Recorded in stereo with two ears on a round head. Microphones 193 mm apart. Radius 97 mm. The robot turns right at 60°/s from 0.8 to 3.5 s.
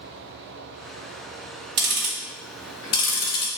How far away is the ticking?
About 0.8 m.